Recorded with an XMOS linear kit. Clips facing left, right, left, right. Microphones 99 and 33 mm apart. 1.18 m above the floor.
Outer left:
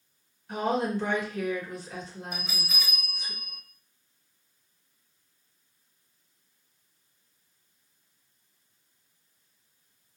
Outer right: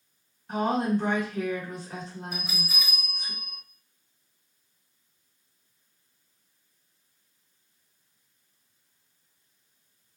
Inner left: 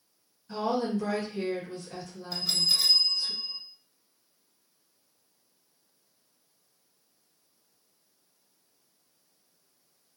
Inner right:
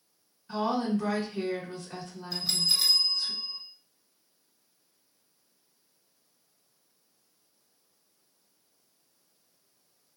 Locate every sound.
0.5 s a woman speaking: 30° right (ahead or behind), 1.5 m
2.3 s a bell: centre (ahead or behind), 0.7 m